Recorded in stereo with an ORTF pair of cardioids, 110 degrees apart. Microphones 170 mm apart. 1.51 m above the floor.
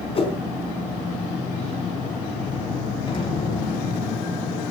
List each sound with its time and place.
0.1 s a whoosh: 40° left, 4 m
3.1 s an explosion: 30° left, 9 m